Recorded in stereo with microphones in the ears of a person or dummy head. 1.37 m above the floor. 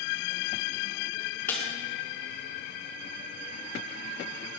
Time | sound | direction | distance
1.5 | breaking glass | 10° left (ahead or behind) | 4 m